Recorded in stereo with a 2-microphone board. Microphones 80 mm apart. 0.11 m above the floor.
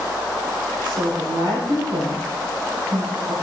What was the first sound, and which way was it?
A woman speaking, 65° right (ahead or behind).